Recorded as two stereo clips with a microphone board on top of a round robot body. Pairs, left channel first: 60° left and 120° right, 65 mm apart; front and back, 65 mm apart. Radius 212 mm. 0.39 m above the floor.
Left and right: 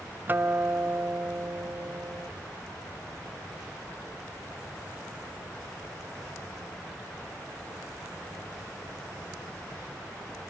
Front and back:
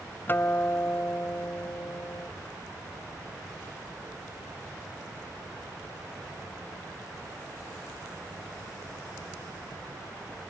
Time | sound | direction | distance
0.3 | a guitar | 60° right | ?